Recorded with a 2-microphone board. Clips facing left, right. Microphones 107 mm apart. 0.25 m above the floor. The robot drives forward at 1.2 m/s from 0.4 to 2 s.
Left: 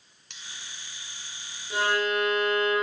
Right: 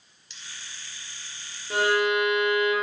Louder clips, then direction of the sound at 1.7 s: Right 3 dB; 65° right (ahead or behind).